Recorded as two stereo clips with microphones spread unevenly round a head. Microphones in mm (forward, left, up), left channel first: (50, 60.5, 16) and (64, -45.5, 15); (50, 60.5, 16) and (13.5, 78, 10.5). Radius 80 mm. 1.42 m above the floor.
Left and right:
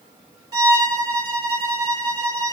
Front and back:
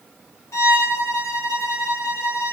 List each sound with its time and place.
0.5 s a violin: 25° right, 1.4 m